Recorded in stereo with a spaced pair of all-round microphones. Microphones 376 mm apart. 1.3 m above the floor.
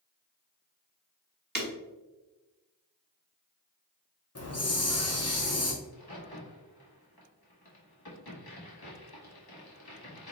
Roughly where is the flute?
No flute in this recording.